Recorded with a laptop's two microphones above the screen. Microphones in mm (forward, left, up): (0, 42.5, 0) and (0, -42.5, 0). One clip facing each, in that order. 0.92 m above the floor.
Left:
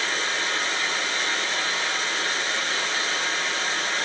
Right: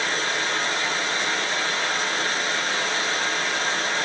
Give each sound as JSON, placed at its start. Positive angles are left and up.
{"t": 0.0, "sound": "running water", "side_deg": -45, "distance_m": 1.8}